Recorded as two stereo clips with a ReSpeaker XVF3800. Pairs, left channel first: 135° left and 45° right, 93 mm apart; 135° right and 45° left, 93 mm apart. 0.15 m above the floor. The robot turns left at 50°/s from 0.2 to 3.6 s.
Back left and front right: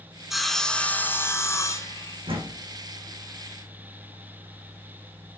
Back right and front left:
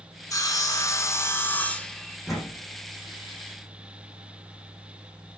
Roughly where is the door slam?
Ahead right.